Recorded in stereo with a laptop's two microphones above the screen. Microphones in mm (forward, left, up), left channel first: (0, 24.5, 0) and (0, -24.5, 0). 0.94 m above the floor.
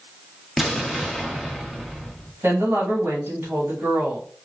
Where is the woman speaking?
55° right (ahead or behind), 2.5 m.